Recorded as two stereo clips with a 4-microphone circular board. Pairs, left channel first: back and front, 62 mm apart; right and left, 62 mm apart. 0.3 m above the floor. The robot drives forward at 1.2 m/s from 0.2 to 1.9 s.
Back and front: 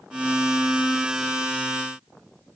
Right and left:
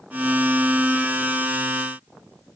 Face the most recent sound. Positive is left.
No sound to turn to.